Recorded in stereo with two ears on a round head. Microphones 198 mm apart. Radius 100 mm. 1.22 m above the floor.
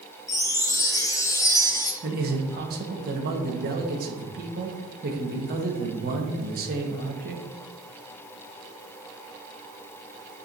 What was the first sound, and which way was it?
A chime, 15° left (ahead or behind).